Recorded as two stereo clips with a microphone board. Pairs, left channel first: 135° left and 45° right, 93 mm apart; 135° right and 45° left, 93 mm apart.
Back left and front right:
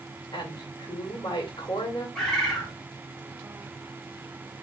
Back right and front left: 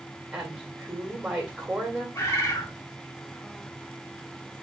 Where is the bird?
145° right, 1.4 m.